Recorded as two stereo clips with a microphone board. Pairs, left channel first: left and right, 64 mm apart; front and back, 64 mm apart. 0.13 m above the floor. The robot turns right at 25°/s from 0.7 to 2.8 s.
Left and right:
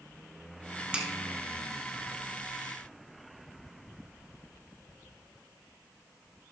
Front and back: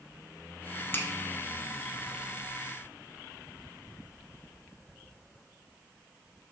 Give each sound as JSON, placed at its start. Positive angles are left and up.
{"t": 0.9, "sound": "a finger snap", "azimuth_deg": -30, "distance_m": 1.1}